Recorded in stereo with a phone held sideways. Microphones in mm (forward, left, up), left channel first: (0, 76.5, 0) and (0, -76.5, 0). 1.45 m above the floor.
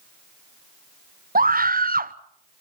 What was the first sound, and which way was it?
A scream, 70° right (ahead or behind).